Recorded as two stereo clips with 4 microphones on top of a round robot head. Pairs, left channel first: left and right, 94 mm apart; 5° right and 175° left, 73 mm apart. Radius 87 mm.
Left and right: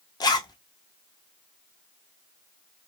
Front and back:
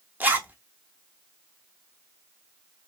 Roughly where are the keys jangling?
No keys jangling in this recording.